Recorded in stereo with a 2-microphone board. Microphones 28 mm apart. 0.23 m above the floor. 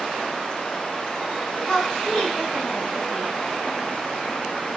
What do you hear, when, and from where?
1.7 s a woman speaking: 30° left (ahead or behind), 1.6 m